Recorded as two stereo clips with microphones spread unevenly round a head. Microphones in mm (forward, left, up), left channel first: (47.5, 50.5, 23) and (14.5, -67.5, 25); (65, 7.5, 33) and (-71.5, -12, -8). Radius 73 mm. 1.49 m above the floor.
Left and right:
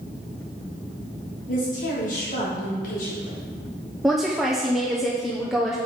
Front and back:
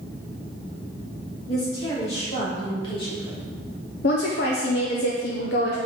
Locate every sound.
1.5 s a woman speaking: 55° left, 4 m; by 3.4 s 65° left, 3.5 m
4.0 s a woman speaking: 15° right, 1.1 m